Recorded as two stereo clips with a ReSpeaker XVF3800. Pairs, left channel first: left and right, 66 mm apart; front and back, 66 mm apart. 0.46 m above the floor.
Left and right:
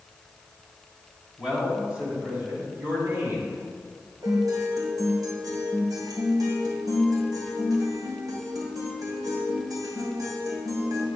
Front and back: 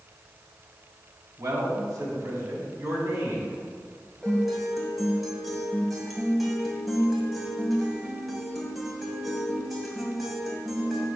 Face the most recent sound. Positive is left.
turn(degrees=-90)